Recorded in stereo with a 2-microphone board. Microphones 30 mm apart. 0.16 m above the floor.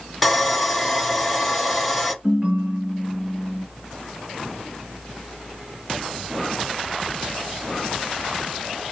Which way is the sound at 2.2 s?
40° right (ahead or behind).